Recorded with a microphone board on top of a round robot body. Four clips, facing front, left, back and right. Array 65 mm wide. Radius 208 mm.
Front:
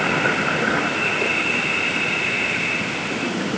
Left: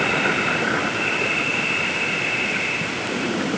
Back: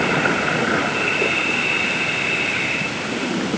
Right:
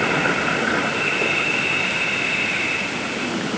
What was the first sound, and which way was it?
Only background noise.